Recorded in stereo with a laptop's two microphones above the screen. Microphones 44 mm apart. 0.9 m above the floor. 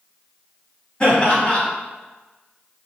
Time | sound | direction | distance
1.0 | laughter | 20° left (ahead or behind) | 1.4 m